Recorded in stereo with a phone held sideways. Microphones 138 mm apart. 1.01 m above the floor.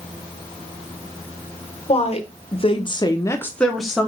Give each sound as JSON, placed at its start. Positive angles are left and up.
{"t": 1.9, "sound": "a woman speaking", "side_deg": 45, "distance_m": 1.1}